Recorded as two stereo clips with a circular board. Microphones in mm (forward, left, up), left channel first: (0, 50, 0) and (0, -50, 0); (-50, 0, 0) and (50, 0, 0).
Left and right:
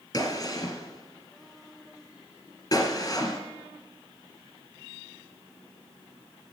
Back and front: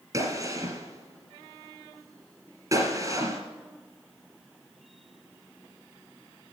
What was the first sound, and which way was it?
A gunshot, 45° left.